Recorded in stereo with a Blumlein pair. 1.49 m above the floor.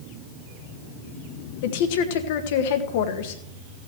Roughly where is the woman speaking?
Ahead left.